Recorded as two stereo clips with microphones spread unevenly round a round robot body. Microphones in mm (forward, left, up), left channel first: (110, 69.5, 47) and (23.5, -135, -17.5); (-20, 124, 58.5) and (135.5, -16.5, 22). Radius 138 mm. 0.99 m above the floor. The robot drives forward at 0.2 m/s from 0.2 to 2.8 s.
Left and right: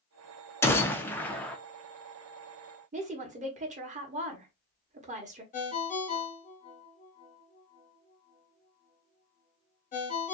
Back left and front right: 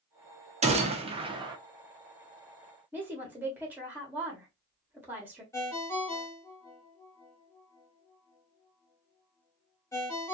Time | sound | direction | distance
0.6 | a gunshot | 25° right | 0.7 m
2.9 | a woman speaking | 110° right | 0.9 m
5.5 | a ringtone | 75° left | 0.7 m